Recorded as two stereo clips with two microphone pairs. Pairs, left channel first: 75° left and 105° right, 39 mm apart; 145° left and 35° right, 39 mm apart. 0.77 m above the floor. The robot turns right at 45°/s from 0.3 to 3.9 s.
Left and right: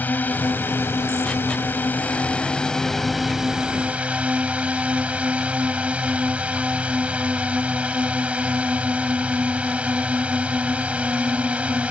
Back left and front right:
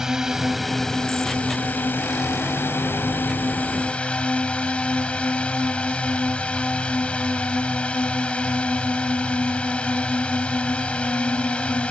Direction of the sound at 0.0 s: 40° left.